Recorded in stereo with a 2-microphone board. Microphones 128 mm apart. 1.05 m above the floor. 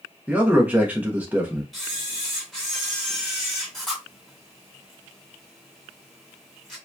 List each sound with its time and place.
0.3 s a man speaking: 15° right (ahead or behind), 0.6 m
1.7 s a camera shutter: centre (ahead or behind), 1.2 m